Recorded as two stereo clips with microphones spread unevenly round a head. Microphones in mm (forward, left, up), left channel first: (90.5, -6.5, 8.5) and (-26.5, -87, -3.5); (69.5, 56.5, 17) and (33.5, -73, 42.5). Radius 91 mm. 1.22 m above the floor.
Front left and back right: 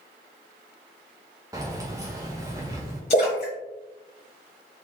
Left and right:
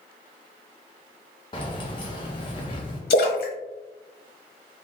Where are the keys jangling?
140° left, 0.5 m.